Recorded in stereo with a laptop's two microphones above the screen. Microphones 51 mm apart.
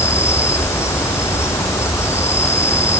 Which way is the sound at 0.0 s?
60° left (ahead or behind).